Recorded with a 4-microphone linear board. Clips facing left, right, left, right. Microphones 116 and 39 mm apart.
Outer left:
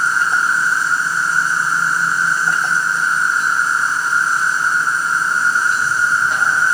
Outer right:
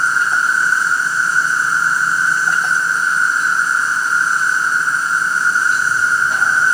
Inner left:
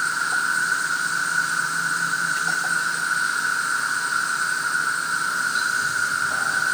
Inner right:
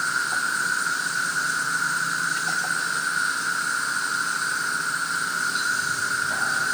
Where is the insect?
55° left (ahead or behind), 4 m.